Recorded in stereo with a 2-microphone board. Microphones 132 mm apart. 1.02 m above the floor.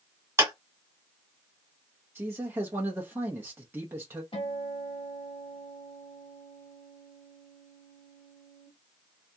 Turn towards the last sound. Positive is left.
turn(degrees=45)  # may be behind; listen again after turning